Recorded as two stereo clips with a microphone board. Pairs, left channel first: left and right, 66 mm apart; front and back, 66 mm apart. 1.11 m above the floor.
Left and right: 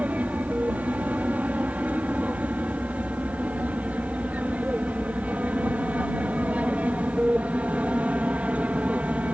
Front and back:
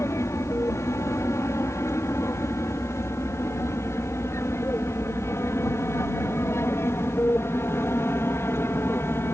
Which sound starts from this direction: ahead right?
An aircraft, at 0.0 s.